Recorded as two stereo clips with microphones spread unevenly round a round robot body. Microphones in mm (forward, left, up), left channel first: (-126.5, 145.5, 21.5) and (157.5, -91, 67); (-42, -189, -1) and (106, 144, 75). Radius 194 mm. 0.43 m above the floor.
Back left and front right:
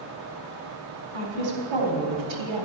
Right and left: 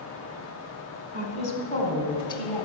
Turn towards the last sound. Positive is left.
turn(degrees=-40)